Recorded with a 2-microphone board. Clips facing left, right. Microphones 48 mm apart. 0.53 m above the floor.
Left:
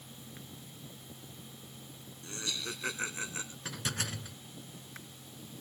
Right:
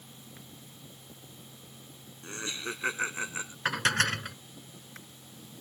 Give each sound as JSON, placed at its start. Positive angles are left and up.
{"t": 2.2, "sound": "laughter", "side_deg": -30}
{"t": 3.6, "sound": "dishes clattering", "side_deg": -60}